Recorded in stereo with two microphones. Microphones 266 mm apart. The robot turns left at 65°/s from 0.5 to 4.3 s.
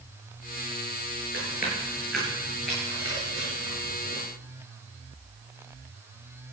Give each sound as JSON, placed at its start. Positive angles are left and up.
{"t": 1.3, "sound": "chewing", "side_deg": 50, "distance_m": 9.5}